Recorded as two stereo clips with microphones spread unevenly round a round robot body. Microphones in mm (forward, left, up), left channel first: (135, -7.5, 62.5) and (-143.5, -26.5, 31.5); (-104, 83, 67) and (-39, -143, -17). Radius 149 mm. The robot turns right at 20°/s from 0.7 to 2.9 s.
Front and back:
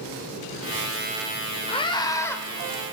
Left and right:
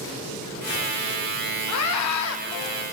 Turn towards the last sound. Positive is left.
turn(degrees=100)